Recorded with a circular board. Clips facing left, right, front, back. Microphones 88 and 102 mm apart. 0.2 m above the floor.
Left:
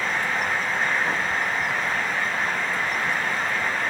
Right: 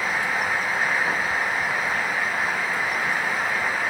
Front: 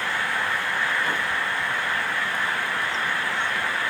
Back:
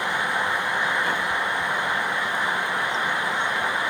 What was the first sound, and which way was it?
Only background noise.